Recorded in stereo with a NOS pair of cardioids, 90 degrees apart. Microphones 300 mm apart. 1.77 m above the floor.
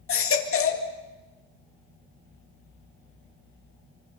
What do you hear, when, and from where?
0.1 s a baby crying: 45° left, 2.5 m